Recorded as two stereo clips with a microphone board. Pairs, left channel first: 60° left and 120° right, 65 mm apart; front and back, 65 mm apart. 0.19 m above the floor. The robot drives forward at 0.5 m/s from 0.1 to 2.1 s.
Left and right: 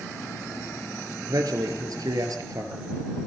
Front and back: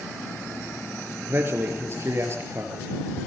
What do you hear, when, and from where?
1.3 s a man speaking: 125° right, 3 m; by 2.9 s 135° right, 3.5 m